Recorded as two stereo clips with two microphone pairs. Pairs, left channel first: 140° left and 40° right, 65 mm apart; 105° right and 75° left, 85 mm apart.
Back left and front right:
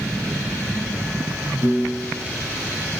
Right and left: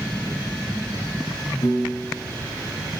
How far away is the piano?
About 3 m.